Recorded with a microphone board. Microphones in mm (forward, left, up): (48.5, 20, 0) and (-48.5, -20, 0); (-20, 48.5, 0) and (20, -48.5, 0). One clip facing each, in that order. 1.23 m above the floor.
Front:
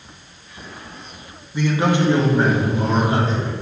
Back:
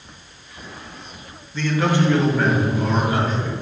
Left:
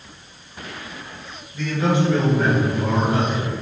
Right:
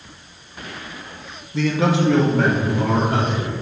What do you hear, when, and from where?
1.5 s a man speaking: 55° right, 1.8 m; by 3.5 s 40° right, 4 m